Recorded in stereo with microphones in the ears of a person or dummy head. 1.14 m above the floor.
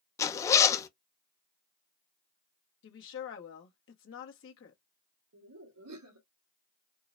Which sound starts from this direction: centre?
A zipper, at 0.2 s.